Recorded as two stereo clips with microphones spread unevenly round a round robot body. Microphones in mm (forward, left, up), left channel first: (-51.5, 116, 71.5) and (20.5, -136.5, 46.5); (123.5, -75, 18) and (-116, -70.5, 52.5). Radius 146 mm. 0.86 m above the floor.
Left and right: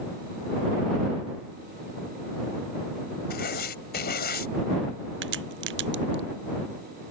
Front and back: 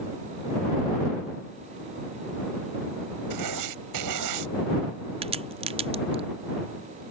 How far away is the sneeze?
No sneeze in this recording.